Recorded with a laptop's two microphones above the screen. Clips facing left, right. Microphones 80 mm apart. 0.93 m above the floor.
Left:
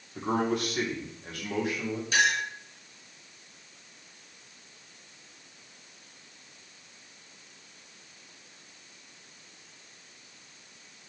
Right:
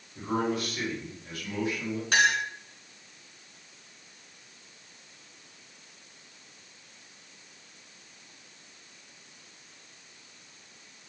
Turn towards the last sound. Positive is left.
turn(degrees=-65)  # may be behind; listen again after turning